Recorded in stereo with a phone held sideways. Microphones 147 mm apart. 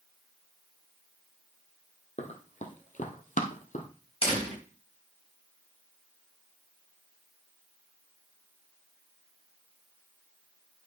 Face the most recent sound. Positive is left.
turn(degrees=45)  # may be behind; listen again after turning